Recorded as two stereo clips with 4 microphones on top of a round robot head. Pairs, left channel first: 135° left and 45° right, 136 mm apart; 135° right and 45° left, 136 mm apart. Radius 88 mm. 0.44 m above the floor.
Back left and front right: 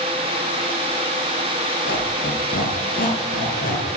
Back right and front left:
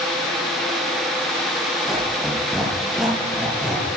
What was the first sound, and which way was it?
A squeak, 135° left.